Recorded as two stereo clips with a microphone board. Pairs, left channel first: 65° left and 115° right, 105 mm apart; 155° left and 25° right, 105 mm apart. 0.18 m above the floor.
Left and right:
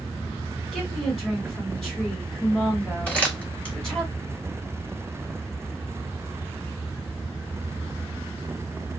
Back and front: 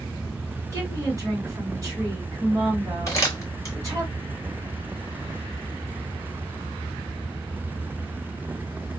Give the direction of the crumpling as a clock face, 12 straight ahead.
7 o'clock.